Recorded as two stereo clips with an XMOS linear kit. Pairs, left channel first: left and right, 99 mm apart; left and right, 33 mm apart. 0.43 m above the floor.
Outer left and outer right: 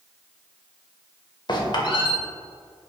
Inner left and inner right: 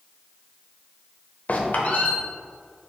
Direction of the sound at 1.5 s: 50° left (ahead or behind).